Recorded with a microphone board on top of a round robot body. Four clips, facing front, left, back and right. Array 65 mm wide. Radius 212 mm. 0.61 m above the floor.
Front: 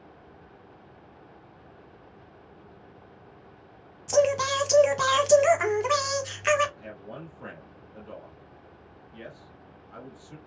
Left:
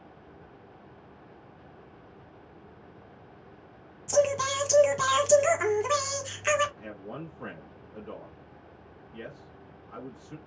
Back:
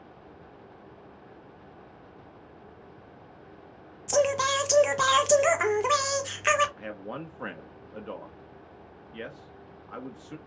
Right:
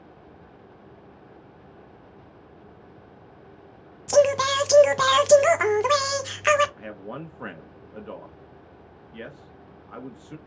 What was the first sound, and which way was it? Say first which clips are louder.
Singing: right 6 dB, front 2 dB; 100° right.